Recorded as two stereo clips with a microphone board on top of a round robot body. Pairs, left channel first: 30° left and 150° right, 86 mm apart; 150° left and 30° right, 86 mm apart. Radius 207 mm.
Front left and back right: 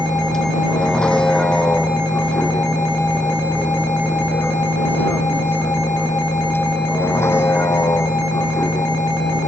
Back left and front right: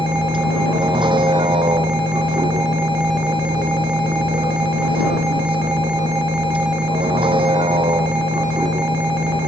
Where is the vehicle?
55° right; by 9.5 s 25° right.